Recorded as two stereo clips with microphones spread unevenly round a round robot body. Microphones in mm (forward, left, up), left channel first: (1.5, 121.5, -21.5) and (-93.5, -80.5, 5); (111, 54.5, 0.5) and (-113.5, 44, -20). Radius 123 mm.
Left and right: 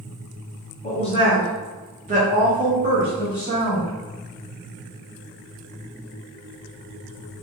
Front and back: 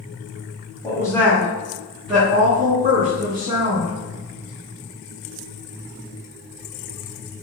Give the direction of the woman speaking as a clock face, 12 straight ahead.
10 o'clock.